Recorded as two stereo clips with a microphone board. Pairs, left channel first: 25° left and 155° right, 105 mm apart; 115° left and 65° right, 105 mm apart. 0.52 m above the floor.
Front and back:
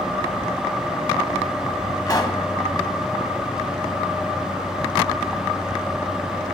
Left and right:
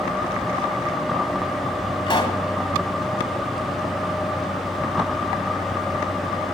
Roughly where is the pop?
Left.